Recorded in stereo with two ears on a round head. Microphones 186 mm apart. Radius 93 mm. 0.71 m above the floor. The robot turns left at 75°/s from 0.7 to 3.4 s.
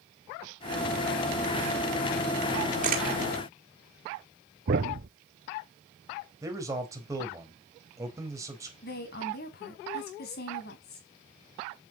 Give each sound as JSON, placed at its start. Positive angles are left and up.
{"t": 2.8, "sound": "a camera shutter", "side_deg": -40, "distance_m": 1.9}
{"t": 4.7, "sound": "a thud", "side_deg": -50, "distance_m": 1.0}
{"t": 6.4, "sound": "a man speaking", "side_deg": -15, "distance_m": 4.0}
{"t": 8.8, "sound": "a woman speaking", "side_deg": 50, "distance_m": 4.5}